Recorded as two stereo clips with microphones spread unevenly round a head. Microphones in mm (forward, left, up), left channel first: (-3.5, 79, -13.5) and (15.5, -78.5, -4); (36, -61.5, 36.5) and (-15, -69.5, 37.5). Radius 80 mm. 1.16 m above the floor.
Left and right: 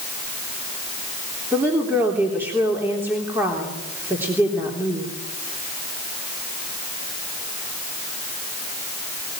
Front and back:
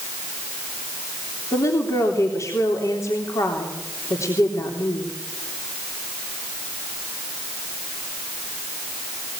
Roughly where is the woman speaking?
Ahead.